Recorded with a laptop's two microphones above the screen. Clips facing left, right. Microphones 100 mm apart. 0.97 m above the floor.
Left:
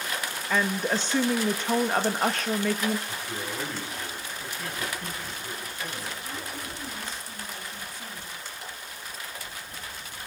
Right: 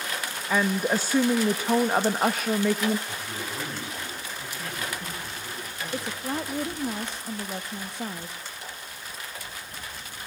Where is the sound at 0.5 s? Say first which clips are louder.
Right 2 dB; 10° right (ahead or behind), 0.9 m.